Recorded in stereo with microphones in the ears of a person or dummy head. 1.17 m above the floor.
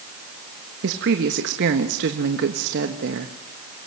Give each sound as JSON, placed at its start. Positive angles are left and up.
{"t": 0.8, "sound": "a woman speaking", "side_deg": -50, "distance_m": 1.4}